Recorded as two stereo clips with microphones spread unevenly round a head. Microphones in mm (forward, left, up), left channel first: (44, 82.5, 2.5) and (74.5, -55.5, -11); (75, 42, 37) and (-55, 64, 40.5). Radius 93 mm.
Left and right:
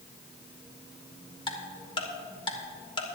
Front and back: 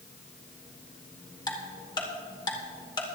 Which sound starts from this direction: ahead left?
Ticking, at 1.5 s.